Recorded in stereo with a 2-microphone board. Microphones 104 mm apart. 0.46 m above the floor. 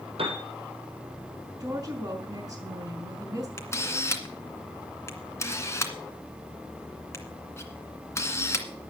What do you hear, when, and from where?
0.2 s a piano: 75° right (ahead or behind), 3.5 m
1.6 s a woman speaking: 40° right (ahead or behind), 5.5 m
3.6 s a camera shutter: 30° left (ahead or behind), 2 m